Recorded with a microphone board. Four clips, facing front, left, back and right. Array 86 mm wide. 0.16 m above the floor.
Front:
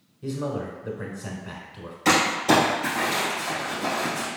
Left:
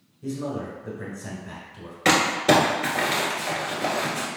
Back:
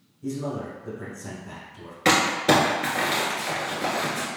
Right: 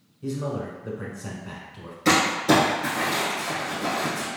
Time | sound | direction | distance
0.2 | a man speaking | 20° right | 1.2 m
2.0 | crumpling | 135° left | 1.6 m